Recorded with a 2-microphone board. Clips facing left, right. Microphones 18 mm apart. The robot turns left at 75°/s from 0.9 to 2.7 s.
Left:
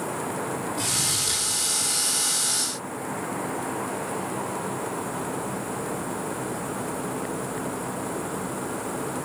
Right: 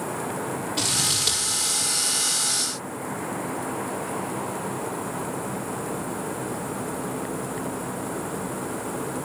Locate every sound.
0.8 s scissors: 55° right (ahead or behind), 6 m; by 1.9 s 45° right (ahead or behind), 6 m